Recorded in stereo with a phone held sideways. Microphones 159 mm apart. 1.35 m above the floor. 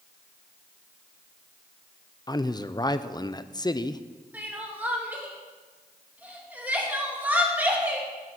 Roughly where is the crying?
Centre.